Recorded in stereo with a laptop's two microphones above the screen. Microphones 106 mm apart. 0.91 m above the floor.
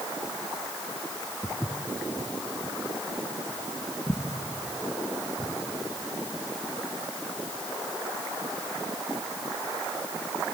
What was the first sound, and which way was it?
Footsteps, 5° left (ahead or behind).